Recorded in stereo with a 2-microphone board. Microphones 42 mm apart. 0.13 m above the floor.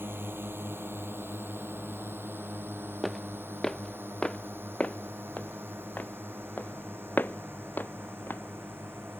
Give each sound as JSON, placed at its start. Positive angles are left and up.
{"t": 0.0, "sound": "a drone", "side_deg": -65}
{"t": 3.0, "sound": "footsteps", "side_deg": 0}